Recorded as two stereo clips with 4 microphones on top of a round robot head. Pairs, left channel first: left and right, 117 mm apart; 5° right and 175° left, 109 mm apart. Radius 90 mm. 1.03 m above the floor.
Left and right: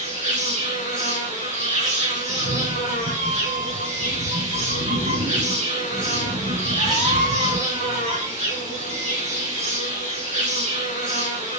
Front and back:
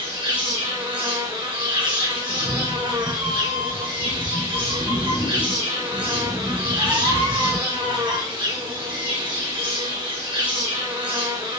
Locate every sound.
0.0 s an insect: 110° right, 5.5 m
2.3 s a cat meowing: 110° right, 8 m